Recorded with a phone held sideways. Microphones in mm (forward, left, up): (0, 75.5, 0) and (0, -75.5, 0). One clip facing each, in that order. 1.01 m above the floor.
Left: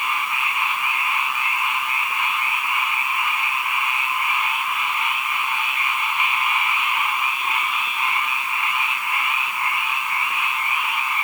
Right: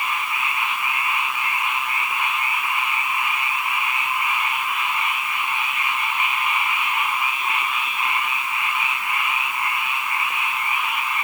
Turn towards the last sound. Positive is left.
No sound to turn to.